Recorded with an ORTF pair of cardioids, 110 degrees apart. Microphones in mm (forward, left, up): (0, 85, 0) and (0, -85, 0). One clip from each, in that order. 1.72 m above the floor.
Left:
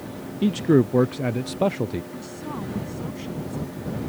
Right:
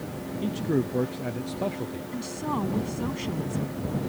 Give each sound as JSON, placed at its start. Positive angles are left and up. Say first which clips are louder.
{"t": 0.4, "sound": "a man speaking", "louder": "left 8 dB", "azimuth_deg": 45}
{"t": 2.1, "sound": "a woman speaking", "louder": "right 3 dB", "azimuth_deg": -35}